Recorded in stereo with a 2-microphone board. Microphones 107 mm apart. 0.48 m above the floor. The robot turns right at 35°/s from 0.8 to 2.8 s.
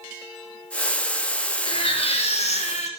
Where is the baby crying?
50° left, 4.5 m; by 2.9 s 90° left, 4.5 m.